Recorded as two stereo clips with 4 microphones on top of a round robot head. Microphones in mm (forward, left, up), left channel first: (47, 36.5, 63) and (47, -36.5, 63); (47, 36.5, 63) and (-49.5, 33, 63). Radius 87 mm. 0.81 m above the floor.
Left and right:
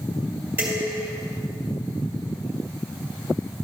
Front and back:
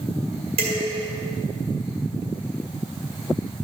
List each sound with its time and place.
0.6 s dishes clattering: 160° right, 1.9 m